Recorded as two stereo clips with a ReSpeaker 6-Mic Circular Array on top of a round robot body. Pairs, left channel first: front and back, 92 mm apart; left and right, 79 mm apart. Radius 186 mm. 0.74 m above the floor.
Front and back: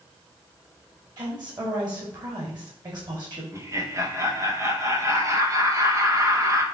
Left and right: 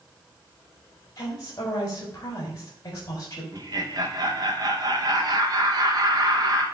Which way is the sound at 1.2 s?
140° left.